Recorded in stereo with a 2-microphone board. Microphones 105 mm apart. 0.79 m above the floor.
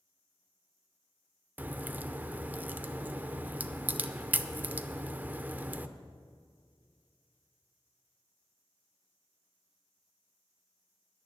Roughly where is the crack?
Centre.